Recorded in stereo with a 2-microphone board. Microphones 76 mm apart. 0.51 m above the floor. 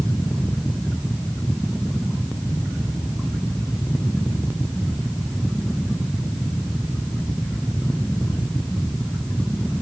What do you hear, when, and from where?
Only background noise.